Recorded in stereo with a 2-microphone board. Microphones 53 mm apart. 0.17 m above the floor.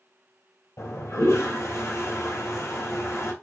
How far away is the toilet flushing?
About 2 m.